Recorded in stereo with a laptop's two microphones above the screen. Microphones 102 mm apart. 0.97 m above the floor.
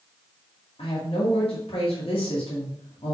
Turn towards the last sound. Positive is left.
turn(degrees=65)  # may be behind; listen again after turning